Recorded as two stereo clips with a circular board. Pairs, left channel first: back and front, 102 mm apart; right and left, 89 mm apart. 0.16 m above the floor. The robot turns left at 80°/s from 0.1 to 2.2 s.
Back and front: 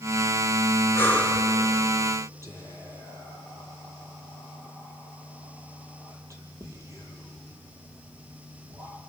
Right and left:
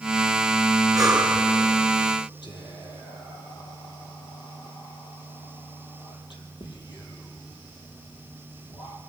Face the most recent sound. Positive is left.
turn(degrees=-60)